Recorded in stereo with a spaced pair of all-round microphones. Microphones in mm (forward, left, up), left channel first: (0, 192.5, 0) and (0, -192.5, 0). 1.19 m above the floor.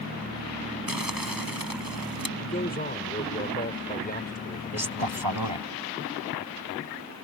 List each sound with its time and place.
0.9 s crumpling: 65° right (ahead or behind)
2.4 s a man speaking: 25° left (ahead or behind)
4.7 s a man speaking: 80° right